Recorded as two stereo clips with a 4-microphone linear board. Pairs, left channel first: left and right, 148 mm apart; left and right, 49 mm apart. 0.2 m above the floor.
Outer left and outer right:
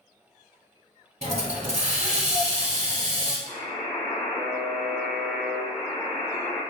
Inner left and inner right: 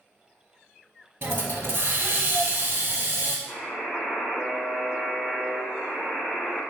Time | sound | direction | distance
1.2 | a hiss | 50° right (ahead or behind) | 0.6 m
3.5 | a buzzer | 10° left (ahead or behind) | 1.0 m